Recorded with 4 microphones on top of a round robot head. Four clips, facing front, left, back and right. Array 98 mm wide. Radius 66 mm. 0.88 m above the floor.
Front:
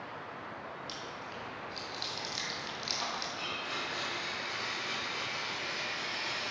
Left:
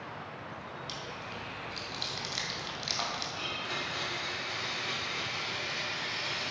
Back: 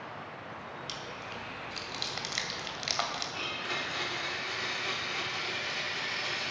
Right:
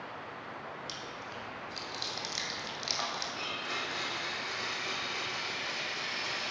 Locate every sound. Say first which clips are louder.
0.9 s chewing: left 1 dB, back 1 dB; 175° right, 1.9 m
3.3 s a blender: even, back 2 dB; 170° right, 3 m